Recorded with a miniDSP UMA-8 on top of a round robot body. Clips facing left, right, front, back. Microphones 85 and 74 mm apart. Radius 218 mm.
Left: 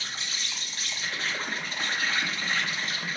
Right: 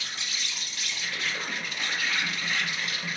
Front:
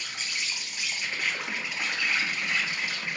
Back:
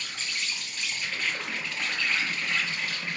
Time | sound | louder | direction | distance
0.0 | an insect | even, even | 65° left | 0.9 m